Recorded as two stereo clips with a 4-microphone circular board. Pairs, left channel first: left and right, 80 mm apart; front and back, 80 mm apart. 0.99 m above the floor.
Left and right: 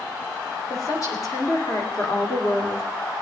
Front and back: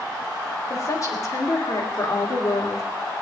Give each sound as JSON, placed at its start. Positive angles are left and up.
{"t": 0.7, "sound": "a woman speaking", "azimuth_deg": 45, "distance_m": 3.0}